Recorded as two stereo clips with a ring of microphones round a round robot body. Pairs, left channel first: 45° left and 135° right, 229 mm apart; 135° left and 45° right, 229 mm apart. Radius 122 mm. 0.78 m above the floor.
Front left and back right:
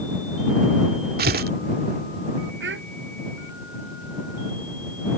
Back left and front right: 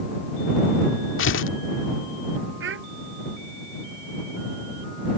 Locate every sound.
1.2 s tearing paper: 175° left
2.6 s a child speaking: 90° right